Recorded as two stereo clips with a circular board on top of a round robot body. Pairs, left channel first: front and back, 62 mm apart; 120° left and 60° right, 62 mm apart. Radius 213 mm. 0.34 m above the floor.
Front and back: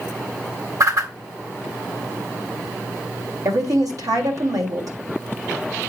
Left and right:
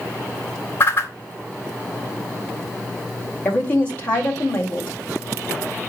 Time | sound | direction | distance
0.8 | a whoosh | 170° left | 2.5 m
3.5 | a woman speaking | 175° right | 2.5 m